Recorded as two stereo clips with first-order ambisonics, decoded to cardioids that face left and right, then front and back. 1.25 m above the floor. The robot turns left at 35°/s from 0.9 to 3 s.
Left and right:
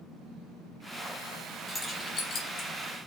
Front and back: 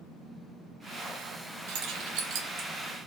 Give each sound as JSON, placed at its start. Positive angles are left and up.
{"t": 1.7, "sound": "keys jangling", "azimuth_deg": 170, "distance_m": 0.5}